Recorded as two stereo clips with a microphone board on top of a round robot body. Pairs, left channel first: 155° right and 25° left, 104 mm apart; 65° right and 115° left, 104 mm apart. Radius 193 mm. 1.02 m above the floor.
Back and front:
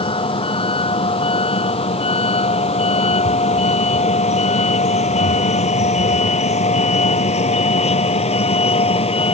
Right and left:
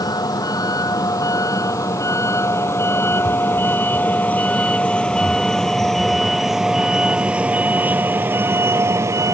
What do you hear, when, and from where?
0.0 s a vehicle: 120° right; by 9.3 s 175° left